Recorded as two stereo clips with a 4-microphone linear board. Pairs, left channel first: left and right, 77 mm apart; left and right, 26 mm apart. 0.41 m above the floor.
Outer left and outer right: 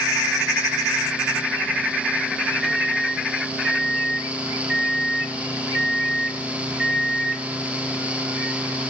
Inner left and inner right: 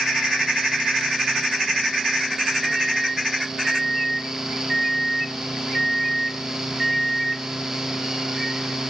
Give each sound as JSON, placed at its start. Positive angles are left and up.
{"t": 2.6, "sound": "a microwave", "side_deg": -5, "distance_m": 0.6}